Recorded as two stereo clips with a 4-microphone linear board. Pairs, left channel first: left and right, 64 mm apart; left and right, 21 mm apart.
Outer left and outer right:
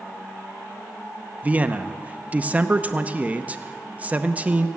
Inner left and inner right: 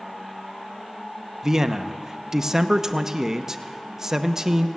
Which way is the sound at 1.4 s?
25° right (ahead or behind).